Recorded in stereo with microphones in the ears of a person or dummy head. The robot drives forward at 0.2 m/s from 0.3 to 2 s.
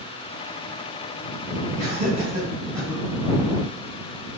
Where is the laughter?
25° right (ahead or behind), 1.5 m.